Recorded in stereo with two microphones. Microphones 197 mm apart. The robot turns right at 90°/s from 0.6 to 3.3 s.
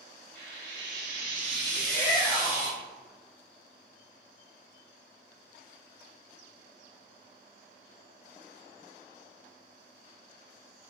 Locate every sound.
0.3 s frying: 115° right, 1.4 m; by 2.7 s 75° left, 1.4 m
1.7 s a shout: 65° right, 1.8 m; by 2.8 s 35° left, 1.8 m